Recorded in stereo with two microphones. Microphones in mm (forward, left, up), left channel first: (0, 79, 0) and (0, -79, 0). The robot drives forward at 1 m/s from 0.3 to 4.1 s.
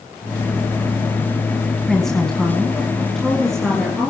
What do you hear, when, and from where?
1.9 s a woman speaking: 5° left (ahead or behind), 1.6 m; by 4.1 s centre (ahead or behind), 3.5 m